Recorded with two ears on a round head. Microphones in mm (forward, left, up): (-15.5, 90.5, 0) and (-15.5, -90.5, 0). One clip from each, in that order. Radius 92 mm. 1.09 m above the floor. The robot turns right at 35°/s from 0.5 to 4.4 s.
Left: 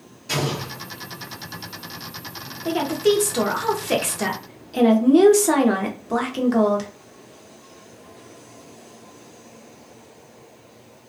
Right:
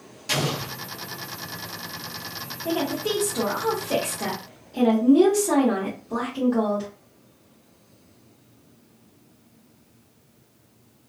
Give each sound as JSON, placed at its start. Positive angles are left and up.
{"t": 0.3, "sound": "an explosion", "side_deg": -55, "distance_m": 1.1}
{"t": 2.6, "sound": "a woman speaking", "azimuth_deg": 40, "distance_m": 0.7}